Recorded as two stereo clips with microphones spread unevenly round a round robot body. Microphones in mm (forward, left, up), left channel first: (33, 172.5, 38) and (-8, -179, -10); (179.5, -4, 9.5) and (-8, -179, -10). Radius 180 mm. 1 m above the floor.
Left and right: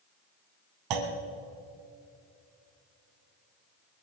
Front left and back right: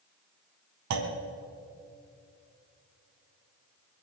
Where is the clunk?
130° right, 1.9 m.